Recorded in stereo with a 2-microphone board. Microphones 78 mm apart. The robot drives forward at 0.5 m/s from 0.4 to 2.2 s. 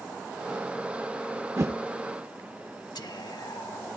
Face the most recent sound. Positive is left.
turn(degrees=75)  # may be behind; listen again after turning